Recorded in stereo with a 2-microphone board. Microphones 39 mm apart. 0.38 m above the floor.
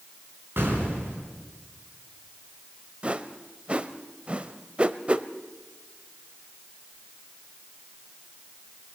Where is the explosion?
75° right (ahead or behind), 5.5 m.